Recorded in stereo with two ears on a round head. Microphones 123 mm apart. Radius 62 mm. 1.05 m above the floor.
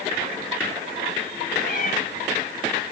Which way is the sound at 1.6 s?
60° left (ahead or behind).